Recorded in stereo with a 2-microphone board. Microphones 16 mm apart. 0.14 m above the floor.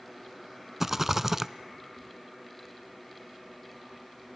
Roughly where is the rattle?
Centre.